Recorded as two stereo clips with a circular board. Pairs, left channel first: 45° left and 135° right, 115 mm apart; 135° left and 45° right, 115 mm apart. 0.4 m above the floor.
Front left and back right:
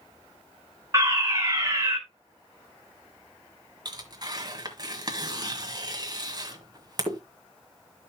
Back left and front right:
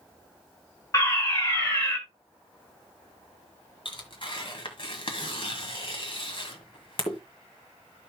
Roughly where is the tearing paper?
Behind.